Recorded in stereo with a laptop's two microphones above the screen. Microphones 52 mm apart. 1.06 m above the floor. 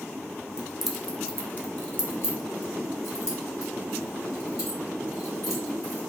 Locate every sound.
0.6 s keys jangling: 10° right (ahead or behind), 0.8 m; by 6.0 s 85° left, 3 m